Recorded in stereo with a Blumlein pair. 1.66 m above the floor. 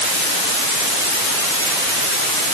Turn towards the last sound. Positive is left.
No sound to turn to.